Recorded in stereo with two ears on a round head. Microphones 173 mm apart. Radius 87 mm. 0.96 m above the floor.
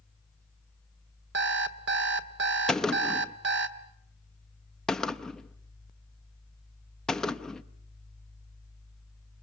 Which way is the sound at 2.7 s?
5° left (ahead or behind).